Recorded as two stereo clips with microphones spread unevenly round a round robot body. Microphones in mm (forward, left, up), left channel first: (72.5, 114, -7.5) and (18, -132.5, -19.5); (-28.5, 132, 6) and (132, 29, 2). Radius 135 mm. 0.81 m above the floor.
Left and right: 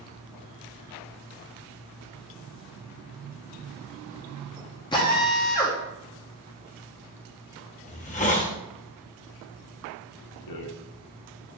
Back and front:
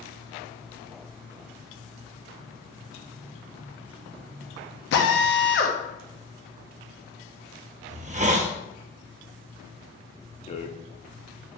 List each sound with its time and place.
4.9 s a drill: 150° left, 1.0 m
7.9 s a hiss: 15° left, 0.9 m
10.5 s a rattle: 90° left, 0.9 m